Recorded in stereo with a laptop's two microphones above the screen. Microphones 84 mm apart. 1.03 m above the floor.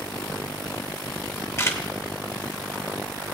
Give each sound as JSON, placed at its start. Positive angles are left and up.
{"t": 1.6, "sound": "a camera shutter", "side_deg": 35, "distance_m": 0.9}